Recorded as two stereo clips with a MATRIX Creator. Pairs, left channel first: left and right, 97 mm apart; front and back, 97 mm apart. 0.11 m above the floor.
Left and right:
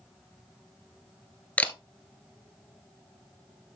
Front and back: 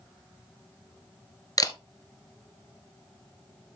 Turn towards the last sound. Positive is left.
turn(degrees=20)